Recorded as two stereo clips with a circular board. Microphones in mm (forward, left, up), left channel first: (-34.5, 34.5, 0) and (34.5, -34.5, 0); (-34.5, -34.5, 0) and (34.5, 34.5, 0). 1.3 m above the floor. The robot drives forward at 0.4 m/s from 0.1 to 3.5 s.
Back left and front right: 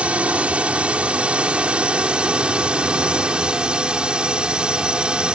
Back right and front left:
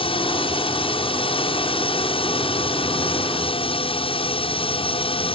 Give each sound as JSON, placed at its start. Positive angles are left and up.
{"t": 0.0, "sound": "a drone", "azimuth_deg": -120}